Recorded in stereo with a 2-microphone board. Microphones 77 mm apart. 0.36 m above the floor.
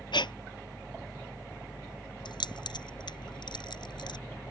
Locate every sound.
0.1 s breathing: 80° left
2.2 s keys jangling: 75° left (ahead or behind)